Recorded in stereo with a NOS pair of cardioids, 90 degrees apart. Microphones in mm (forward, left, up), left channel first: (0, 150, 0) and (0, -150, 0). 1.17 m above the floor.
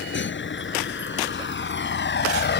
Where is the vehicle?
40° left; by 2.6 s 35° left.